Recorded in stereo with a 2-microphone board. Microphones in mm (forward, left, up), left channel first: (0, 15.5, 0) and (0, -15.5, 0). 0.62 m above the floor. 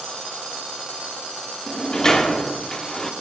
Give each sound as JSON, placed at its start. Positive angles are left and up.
{"t": 1.7, "sound": "a sliding door", "side_deg": 20, "distance_m": 0.7}